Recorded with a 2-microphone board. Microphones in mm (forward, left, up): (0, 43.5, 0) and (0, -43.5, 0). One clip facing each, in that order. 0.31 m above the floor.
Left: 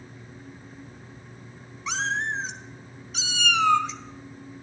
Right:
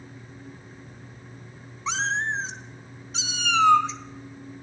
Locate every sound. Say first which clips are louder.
1.9 s a cat meowing: right 1 dB; 30° right (ahead or behind), 1.4 m